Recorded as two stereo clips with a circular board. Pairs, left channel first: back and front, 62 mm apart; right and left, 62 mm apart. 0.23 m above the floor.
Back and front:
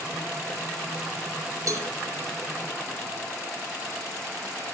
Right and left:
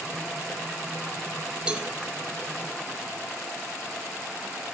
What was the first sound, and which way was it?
A cowbell, 20° left.